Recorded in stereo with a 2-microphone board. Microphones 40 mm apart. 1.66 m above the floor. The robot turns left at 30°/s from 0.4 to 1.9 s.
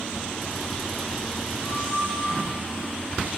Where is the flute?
40° left (ahead or behind), 6.5 m; by 2.3 s 30° left (ahead or behind), 6.5 m.